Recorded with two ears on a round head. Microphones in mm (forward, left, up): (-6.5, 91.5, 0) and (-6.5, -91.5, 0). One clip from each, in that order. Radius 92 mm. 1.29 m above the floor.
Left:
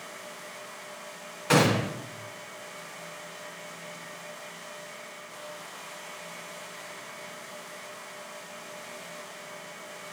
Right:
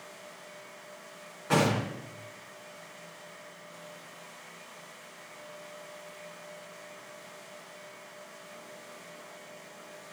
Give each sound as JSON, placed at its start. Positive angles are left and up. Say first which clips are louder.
{"t": 1.5, "sound": "a gunshot", "louder": "left 4 dB", "side_deg": 60, "distance_m": 3.5}